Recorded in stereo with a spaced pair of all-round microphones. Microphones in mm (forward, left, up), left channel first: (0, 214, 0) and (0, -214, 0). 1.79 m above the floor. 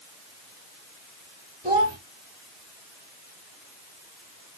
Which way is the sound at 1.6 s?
15° right (ahead or behind).